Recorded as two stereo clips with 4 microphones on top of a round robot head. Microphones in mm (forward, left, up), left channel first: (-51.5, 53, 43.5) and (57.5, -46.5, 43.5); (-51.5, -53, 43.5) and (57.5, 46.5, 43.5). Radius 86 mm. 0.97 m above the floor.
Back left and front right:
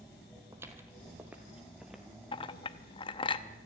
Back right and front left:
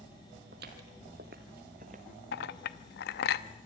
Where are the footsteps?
30° left, 1.6 m; by 2.0 s 45° left, 1.1 m.